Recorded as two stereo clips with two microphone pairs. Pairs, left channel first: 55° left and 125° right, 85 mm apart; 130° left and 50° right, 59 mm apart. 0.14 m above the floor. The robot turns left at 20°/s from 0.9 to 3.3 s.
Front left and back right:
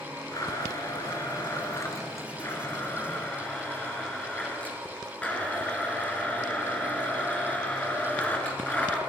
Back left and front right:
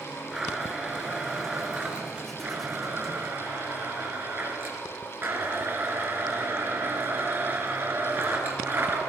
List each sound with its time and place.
0.3 s a blender: 30° left, 2 m; by 9.0 s 15° right, 2 m